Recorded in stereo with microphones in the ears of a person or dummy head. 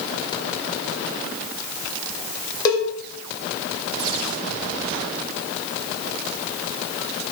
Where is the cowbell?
25° left (ahead or behind), 1.7 m.